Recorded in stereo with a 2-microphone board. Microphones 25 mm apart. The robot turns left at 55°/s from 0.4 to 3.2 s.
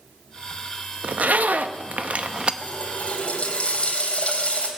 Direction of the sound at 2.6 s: 80° left.